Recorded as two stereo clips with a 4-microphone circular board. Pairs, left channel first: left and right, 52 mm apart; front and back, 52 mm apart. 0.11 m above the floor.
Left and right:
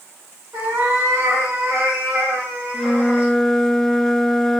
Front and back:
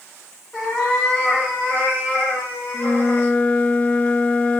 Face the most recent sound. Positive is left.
turn(degrees=15)